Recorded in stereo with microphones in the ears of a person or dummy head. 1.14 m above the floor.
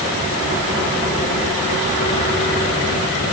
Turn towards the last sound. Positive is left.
No sound to turn to.